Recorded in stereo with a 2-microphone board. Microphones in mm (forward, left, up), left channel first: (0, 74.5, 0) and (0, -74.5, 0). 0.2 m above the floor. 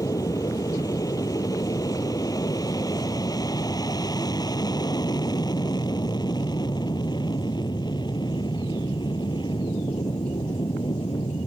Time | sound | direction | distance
0.0 | an aircraft | 20° left (ahead or behind) | ?